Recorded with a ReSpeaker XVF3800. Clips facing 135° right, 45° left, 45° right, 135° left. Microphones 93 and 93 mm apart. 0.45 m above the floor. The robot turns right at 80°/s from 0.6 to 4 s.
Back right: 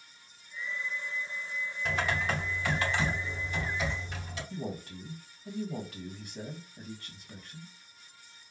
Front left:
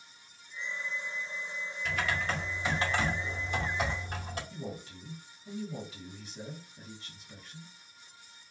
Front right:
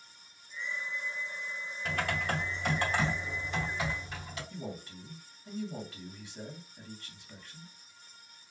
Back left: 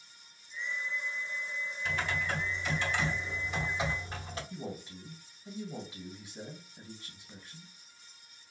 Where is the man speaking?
155° right, 2.5 m.